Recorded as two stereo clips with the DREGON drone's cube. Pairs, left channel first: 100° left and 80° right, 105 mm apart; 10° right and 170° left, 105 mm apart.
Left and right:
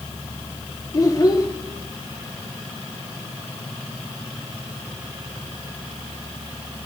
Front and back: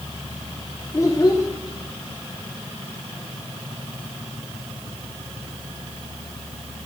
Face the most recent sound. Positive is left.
turn(degrees=45)